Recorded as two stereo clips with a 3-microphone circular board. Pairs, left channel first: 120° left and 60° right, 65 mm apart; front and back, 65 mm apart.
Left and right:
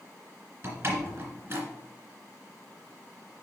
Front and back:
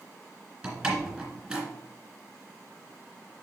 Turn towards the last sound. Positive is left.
turn(degrees=-105)